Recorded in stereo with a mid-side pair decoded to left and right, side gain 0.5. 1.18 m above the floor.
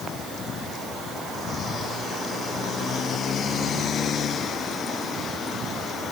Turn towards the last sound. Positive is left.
No sound to turn to.